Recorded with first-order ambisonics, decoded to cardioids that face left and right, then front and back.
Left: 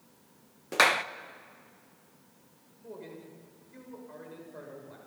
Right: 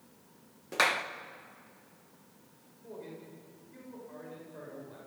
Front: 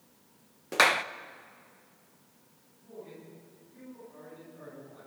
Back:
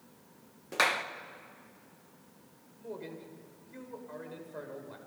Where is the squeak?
No squeak in this recording.